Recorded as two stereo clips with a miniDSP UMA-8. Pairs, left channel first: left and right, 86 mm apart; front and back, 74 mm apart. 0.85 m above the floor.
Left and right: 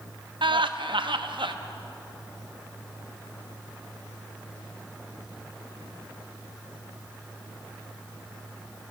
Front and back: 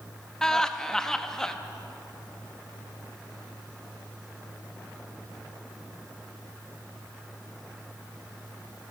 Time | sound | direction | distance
0.4 | laughter | 80° right | 0.7 m